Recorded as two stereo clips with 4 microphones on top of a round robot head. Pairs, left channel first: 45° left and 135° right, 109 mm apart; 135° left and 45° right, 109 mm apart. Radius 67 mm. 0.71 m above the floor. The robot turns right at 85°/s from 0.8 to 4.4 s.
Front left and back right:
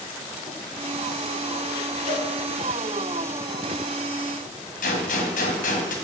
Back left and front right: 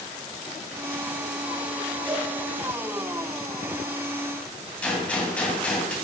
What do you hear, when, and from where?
2.1 s a cowbell: 150° right, 3.5 m; by 2.3 s 130° right, 3.5 m
4.8 s a gunshot: 55° left, 1.9 m